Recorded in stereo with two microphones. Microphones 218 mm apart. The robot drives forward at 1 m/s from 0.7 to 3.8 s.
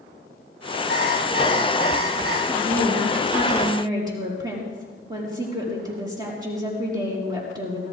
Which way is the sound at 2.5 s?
20° right (ahead or behind).